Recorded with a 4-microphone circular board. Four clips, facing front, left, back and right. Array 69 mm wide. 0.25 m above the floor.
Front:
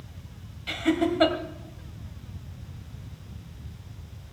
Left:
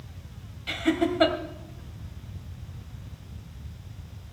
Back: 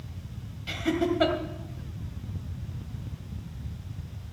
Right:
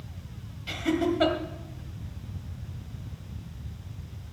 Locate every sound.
0.7 s laughter: 45° left, 1.5 m